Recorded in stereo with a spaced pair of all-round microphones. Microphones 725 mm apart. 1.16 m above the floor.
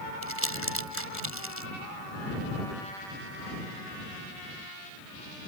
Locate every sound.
0.2 s crumpling: 15° right (ahead or behind)